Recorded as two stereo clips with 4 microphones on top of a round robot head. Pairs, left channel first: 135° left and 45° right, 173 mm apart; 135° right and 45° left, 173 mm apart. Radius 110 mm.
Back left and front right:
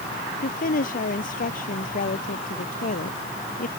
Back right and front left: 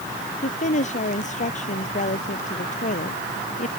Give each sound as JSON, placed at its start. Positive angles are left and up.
{"t": 0.4, "sound": "a woman speaking", "azimuth_deg": 175}